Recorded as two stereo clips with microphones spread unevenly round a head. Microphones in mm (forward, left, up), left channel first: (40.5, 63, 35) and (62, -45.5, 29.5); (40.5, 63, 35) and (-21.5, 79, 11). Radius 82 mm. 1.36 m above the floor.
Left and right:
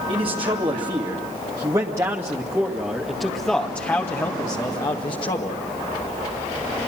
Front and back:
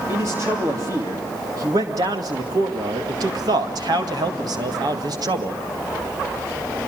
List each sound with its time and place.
0.1 s a man speaking: 130° right, 3 m; by 5.6 s 155° left, 2 m